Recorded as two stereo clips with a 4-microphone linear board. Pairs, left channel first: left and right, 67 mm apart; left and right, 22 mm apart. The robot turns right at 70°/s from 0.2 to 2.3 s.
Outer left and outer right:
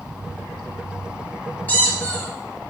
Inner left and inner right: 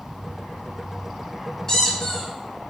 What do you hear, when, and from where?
1.7 s a squeak: 25° left (ahead or behind), 0.6 m; by 2.3 s 20° left (ahead or behind), 0.6 m